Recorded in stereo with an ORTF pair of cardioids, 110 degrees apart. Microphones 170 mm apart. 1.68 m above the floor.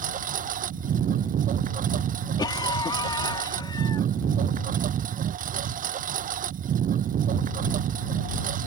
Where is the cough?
25° left.